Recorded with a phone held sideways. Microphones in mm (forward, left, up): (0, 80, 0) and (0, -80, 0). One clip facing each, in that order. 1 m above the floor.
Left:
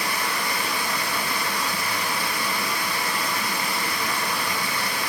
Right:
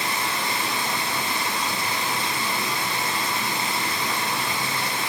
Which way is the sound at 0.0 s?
20° right (ahead or behind).